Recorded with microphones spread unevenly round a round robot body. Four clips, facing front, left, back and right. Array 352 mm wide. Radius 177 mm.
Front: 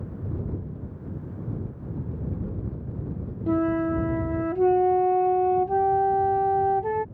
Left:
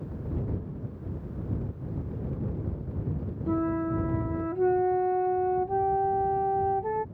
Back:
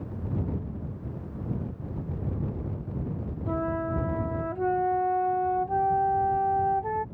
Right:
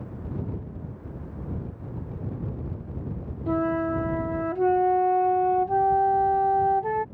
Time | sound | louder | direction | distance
3.5 | a flute | right 3 dB, front 6 dB | straight ahead | ?